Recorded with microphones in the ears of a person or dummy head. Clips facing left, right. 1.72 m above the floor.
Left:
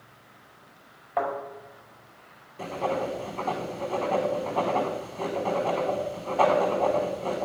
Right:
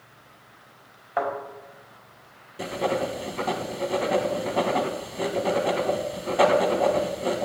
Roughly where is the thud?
Centre.